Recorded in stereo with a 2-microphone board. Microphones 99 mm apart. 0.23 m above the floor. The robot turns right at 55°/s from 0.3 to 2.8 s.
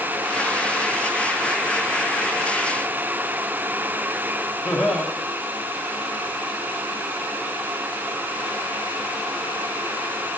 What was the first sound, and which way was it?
Laughter, 5° left (ahead or behind).